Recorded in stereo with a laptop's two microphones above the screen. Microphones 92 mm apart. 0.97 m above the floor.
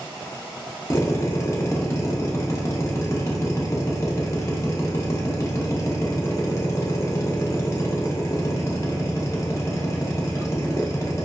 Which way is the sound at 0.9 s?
35° left (ahead or behind).